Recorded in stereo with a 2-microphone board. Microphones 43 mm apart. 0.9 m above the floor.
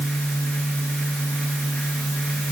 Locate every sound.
Only background noise.